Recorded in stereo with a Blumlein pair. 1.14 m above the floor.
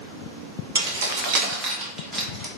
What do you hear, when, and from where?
0.8 s keys jangling: 65° right, 0.8 m; by 2.5 s 5° right, 1.0 m